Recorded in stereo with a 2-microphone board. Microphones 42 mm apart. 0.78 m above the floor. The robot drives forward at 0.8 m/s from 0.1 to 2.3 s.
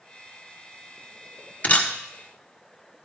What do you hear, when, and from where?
1.6 s a camera shutter: 35° left (ahead or behind), 1.2 m; by 1.9 s 30° left (ahead or behind), 1.4 m